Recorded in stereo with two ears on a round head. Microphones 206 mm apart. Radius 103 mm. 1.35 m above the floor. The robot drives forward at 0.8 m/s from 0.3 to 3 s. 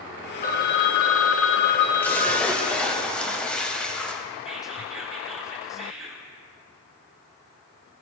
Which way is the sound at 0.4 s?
35° left (ahead or behind).